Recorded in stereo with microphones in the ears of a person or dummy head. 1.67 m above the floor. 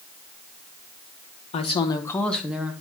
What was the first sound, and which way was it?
A woman speaking, 35° left (ahead or behind).